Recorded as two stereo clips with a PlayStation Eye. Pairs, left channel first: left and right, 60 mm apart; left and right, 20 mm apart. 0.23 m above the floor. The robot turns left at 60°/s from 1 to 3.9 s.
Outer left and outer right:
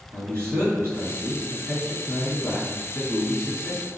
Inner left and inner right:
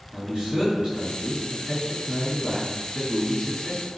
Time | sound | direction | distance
0.1 | a man speaking | 110° right | 1.7 m